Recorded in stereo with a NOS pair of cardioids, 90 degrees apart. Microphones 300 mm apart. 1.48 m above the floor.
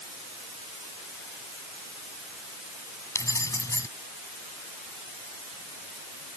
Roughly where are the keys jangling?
Ahead.